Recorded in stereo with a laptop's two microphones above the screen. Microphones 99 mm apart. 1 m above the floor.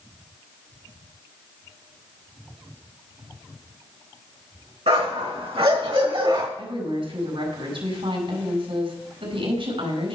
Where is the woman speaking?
70° right (ahead or behind), 4 m.